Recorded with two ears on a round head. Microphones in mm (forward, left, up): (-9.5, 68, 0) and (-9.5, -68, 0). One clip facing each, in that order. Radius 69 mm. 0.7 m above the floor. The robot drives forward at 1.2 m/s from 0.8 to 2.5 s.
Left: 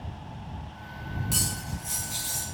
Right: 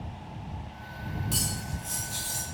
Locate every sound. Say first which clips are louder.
1.3 s cutlery clinking: even; 5° left (ahead or behind), 3 m